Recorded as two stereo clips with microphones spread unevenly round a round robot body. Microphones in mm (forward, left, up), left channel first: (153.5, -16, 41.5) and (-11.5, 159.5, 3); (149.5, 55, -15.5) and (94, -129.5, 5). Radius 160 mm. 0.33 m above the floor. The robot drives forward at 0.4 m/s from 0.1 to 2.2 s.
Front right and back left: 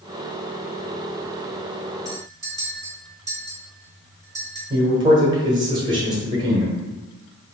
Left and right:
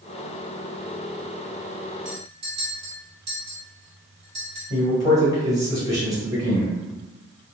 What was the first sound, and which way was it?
A clink, 155° right.